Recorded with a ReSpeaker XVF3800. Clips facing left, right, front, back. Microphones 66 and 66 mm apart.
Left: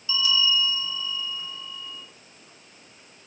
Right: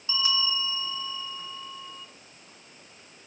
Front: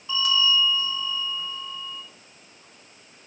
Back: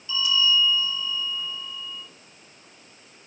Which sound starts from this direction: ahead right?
A bell, at 0.1 s.